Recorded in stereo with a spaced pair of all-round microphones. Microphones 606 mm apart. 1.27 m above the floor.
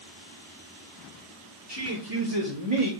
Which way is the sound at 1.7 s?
30° right (ahead or behind).